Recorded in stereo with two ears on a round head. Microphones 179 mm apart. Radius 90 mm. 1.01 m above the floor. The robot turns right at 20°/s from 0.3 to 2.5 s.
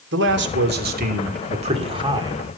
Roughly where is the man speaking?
Ahead right.